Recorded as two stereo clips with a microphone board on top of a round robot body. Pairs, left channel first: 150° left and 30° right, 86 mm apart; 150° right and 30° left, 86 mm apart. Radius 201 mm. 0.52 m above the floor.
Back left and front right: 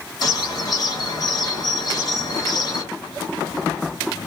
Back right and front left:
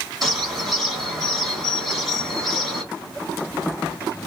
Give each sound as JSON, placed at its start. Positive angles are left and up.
{"t": 0.2, "sound": "a bird", "azimuth_deg": 120, "distance_m": 2.0}